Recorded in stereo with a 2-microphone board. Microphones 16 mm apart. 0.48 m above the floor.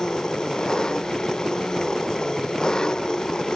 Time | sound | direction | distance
0.0 | an engine running | 50° left (ahead or behind) | ?